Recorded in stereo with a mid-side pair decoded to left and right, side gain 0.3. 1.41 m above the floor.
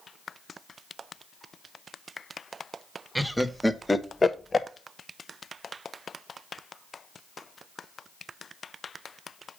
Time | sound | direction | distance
3.1 | laughter | 5° right | 1.4 m